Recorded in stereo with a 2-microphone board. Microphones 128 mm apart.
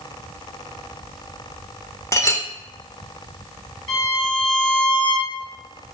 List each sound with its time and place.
2.1 s a clink: 25° left (ahead or behind), 0.6 m
3.9 s a violin: 40° left (ahead or behind), 2 m